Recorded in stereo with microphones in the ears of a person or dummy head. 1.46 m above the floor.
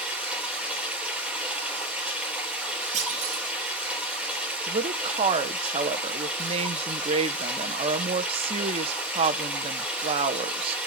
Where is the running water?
5° right (ahead or behind), 3 m.